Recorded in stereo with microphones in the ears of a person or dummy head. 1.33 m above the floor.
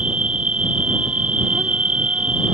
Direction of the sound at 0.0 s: 5° right (ahead or behind).